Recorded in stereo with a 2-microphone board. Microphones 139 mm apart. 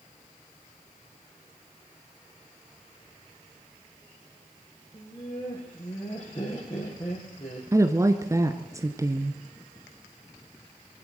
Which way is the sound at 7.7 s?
20° right (ahead or behind).